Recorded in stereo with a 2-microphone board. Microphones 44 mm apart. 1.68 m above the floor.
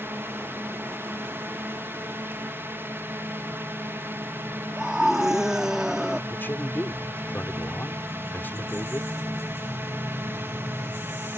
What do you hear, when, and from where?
0.0 s a drone: 55° right (ahead or behind)
4.8 s a scream: 10° right (ahead or behind)
6.3 s a man speaking: 55° left (ahead or behind)